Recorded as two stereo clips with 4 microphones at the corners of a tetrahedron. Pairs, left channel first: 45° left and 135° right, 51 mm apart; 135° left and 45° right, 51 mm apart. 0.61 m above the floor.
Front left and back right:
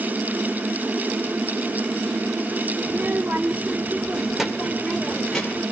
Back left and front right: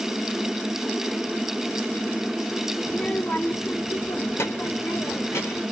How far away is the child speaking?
About 1.2 m.